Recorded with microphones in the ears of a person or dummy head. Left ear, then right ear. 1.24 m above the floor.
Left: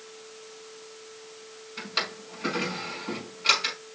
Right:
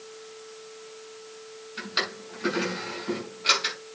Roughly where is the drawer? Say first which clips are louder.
Right 1 dB; centre.